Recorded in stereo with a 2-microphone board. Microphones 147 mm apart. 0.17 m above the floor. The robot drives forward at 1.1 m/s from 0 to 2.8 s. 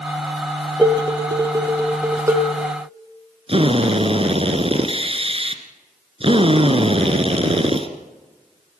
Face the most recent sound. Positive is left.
turn(degrees=-40)  # may be behind; listen again after turning